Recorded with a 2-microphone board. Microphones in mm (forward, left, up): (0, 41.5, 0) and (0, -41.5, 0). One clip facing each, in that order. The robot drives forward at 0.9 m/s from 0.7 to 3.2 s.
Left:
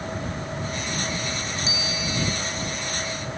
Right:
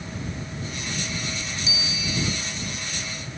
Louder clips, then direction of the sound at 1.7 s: Left 3 dB; 35° left (ahead or behind).